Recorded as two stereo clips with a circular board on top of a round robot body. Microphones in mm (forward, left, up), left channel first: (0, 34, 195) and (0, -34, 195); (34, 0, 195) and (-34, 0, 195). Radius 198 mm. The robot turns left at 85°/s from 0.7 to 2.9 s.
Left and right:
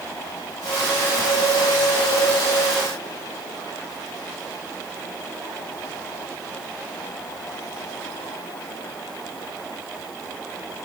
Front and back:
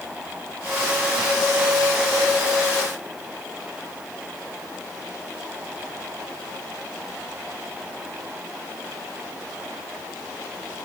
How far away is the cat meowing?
I don't hear a cat meowing.